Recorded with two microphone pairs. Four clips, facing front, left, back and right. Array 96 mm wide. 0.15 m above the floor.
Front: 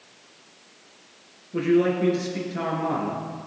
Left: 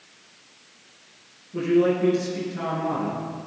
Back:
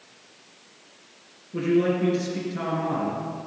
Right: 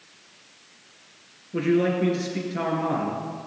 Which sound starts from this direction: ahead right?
A man speaking, at 1.5 s.